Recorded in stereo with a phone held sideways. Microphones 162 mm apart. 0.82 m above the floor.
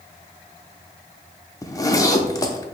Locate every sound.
1.6 s a zipper: 20° left (ahead or behind), 0.6 m